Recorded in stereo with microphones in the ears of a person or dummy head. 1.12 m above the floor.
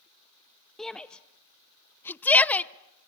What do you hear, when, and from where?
0.8 s a shout: centre (ahead or behind), 0.7 m; by 3.1 s 5° left (ahead or behind), 1.0 m